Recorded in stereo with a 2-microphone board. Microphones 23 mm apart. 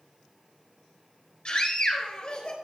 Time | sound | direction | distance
1.4 | a scream | 40° left (ahead or behind) | 3.5 m